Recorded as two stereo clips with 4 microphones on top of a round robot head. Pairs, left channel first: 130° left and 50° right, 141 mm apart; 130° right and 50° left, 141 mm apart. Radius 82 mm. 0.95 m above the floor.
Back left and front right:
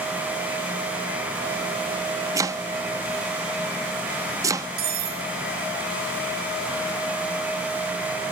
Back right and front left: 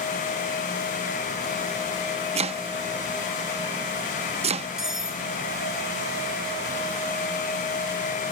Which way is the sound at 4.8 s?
35° right.